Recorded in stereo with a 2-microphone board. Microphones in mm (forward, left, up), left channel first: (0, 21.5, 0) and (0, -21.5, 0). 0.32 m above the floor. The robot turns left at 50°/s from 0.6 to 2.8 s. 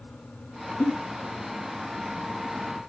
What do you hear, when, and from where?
0.8 s a giggle: 70° left (ahead or behind), 3 m; by 0.9 s 75° left (ahead or behind), 3 m